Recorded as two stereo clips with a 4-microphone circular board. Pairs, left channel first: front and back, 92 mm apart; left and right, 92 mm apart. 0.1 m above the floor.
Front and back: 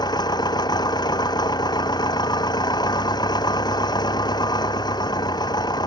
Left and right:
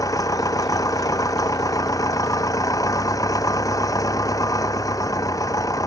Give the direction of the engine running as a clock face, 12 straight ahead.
11 o'clock.